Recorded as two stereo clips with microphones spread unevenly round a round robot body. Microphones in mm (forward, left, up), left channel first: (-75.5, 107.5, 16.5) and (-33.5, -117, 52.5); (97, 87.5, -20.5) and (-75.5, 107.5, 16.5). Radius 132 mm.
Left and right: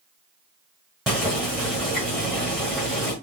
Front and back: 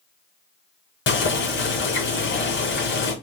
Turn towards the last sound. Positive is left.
turn(degrees=10)